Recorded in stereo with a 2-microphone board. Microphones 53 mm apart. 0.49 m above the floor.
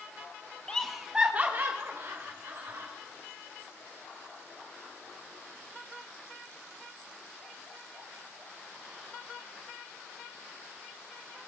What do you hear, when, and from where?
0.7 s laughter: 20° left (ahead or behind), 1.1 m; by 2.9 s 65° right (ahead or behind), 2.5 m